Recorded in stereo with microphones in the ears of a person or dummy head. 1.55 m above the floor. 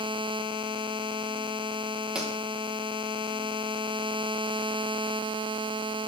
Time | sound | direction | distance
2.1 | a pop | 5° right (ahead or behind) | 1.4 m